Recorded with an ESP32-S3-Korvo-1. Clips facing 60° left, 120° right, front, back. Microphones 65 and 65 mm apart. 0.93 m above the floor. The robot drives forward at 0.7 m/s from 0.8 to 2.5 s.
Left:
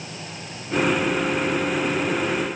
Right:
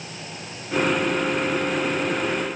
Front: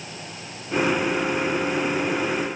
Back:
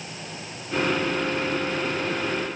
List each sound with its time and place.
Only background noise.